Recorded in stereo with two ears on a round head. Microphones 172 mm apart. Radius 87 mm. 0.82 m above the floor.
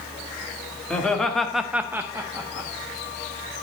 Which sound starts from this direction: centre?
Laughter, at 0.9 s.